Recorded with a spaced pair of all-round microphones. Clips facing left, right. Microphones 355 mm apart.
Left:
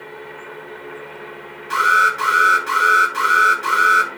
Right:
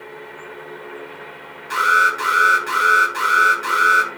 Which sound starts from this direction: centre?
An alarm, at 1.7 s.